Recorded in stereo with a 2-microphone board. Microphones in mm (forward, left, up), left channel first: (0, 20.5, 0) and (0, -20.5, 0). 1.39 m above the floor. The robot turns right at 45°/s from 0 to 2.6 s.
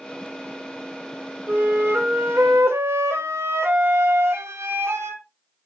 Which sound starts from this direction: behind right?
A flute, at 1.5 s.